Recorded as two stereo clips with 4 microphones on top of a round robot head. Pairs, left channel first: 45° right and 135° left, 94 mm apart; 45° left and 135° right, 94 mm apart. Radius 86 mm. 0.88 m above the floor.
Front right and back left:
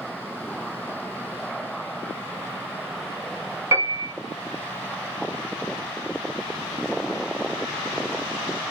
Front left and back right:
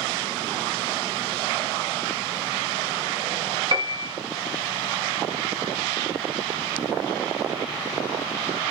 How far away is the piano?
About 1.6 m.